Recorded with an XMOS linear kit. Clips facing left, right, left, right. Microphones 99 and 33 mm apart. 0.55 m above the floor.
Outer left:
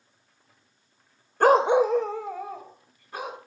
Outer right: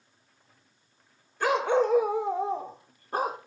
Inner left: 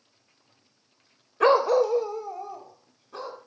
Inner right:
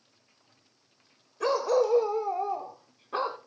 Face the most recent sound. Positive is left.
turn(degrees=-40)  # may be behind; listen again after turning